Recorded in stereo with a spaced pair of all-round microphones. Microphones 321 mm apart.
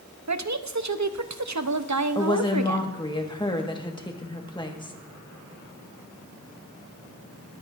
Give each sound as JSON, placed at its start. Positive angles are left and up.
{"t": 0.3, "sound": "a woman speaking", "side_deg": -60, "distance_m": 0.7}
{"t": 2.1, "sound": "a woman speaking", "side_deg": 15, "distance_m": 1.3}